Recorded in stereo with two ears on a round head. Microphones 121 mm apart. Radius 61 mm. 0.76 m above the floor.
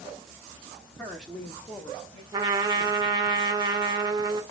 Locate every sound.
1.0 s a woman speaking: centre (ahead or behind), 0.9 m; by 2.2 s 35° left (ahead or behind), 1.4 m
2.3 s a trumpet: 30° right (ahead or behind), 0.7 m